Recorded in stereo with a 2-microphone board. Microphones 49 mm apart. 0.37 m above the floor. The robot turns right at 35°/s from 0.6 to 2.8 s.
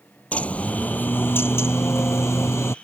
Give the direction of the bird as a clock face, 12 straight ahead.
11 o'clock.